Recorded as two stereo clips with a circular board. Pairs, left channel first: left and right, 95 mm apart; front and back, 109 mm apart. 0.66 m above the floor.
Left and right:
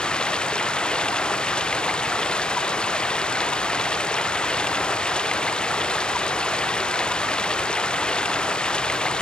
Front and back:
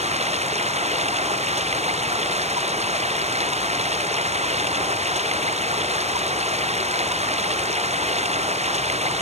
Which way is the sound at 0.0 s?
170° left.